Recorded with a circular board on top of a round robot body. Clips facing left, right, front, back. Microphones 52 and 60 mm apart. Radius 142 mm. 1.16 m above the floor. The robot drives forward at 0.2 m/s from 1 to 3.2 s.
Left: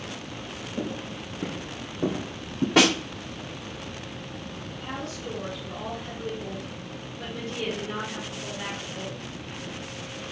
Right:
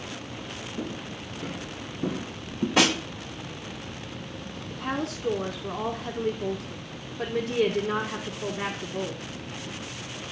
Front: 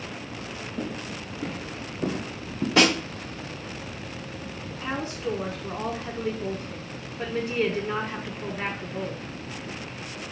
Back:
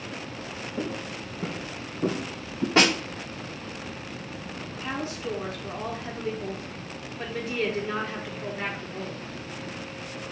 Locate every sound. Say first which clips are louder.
0.8 s footsteps: left 4 dB, back 1 dB; 125° left, 1.9 m; by 2.7 s 80° left, 2.5 m
2.8 s a snare drum: left 2 dB, front 1 dB; 120° left, 2.5 m
4.7 s a woman speaking: right 6 dB, front 1 dB; 90° right, 0.8 m